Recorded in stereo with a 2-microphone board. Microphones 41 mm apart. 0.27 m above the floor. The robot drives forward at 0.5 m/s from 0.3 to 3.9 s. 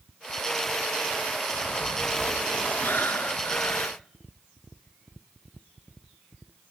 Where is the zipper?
30° left (ahead or behind), 6.5 m; by 3.8 s 35° left (ahead or behind), 5.5 m.